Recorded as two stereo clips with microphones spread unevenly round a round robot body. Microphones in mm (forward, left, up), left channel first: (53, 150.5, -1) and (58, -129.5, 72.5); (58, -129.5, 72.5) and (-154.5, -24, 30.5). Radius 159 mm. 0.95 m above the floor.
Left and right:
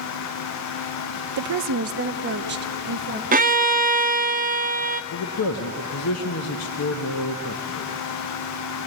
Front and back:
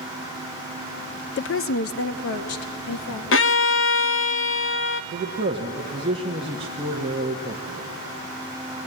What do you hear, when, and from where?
1.4 s a woman speaking: 70° right, 0.6 m; by 3.2 s 30° right, 1.6 m
3.3 s a violin: 40° right, 0.5 m
5.1 s a man speaking: 90° left, 1.0 m